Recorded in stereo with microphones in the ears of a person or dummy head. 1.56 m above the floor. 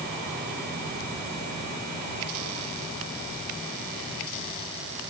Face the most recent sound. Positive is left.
No sound to turn to.